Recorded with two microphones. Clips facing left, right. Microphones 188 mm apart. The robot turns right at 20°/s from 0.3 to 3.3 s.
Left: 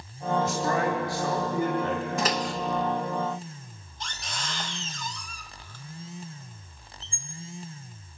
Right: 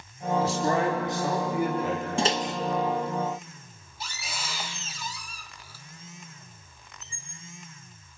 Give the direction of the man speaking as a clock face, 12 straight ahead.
1 o'clock.